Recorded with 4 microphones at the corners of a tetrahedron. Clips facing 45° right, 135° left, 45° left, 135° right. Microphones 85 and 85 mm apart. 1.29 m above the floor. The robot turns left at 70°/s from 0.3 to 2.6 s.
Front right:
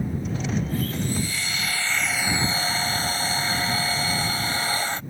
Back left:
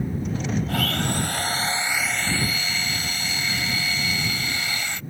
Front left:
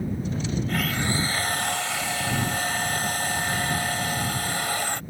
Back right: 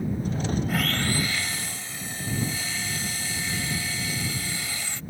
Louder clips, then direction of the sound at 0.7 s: Back left 2 dB, even; 145° left.